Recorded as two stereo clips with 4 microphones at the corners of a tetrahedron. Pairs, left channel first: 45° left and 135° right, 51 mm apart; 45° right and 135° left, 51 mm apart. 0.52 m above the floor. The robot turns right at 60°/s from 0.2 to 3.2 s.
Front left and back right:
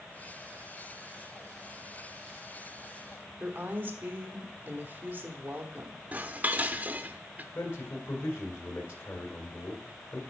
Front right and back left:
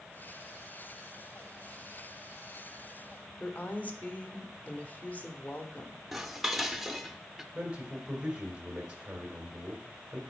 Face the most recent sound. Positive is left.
turn(degrees=65)